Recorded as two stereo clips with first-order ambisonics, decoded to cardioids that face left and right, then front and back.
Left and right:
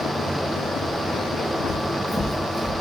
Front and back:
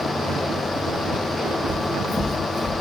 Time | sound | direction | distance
1.7 | footsteps | 165° left | 1.1 m